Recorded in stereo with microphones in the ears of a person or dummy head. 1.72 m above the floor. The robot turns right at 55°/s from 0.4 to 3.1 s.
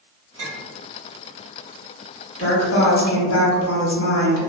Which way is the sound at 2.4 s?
35° left.